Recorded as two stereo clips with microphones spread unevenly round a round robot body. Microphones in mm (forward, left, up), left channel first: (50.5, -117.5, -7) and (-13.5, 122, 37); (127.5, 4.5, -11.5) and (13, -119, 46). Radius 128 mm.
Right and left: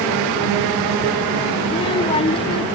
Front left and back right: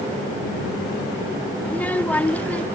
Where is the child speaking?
15° right.